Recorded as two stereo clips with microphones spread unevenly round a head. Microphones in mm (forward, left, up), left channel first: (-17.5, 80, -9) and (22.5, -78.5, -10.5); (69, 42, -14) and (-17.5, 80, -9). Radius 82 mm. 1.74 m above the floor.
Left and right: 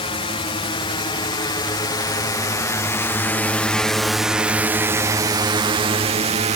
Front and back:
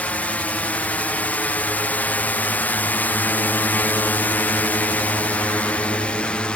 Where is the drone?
50° left; by 6.6 s 100° right.